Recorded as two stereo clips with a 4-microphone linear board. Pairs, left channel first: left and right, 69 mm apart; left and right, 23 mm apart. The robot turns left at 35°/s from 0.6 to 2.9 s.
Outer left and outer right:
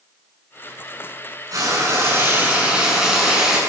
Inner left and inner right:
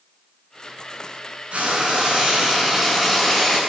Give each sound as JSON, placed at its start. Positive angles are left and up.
{"t": 1.5, "sound": "frying", "azimuth_deg": -125, "distance_m": 8.5}